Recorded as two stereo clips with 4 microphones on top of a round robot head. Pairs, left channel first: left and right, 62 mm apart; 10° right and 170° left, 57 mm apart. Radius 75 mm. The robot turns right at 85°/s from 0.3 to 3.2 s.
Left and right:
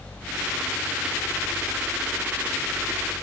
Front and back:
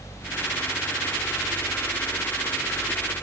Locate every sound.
Only background noise.